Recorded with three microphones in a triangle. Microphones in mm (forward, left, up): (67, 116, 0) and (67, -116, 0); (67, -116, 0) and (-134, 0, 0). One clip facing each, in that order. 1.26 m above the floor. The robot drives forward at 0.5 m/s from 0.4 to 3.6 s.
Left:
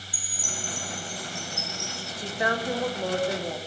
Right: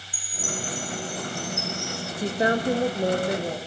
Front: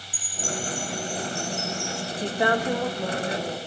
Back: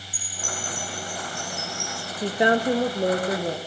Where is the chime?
135° right, 2.5 m; by 2.1 s 150° right, 3 m.